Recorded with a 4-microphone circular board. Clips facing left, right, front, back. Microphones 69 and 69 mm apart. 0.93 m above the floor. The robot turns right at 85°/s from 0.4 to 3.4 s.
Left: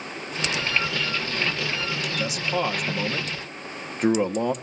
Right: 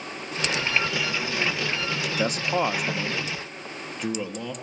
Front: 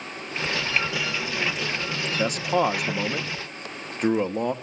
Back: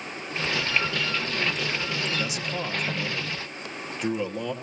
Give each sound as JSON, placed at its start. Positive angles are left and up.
{"t": 2.2, "sound": "a man speaking", "azimuth_deg": -55, "distance_m": 1.3}